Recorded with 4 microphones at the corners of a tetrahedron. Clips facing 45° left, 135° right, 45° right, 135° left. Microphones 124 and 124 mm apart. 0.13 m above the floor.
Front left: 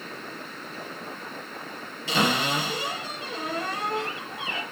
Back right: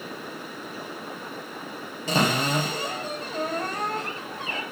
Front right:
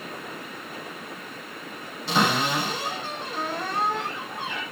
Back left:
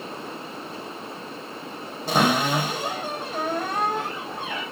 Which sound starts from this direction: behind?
A cupboard door, at 2.1 s.